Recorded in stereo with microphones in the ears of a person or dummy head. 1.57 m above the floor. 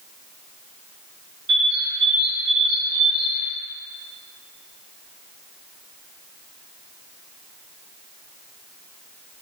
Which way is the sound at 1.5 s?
30° right (ahead or behind).